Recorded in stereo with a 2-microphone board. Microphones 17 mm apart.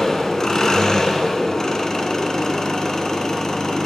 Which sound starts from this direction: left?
An engine running, at 0.0 s.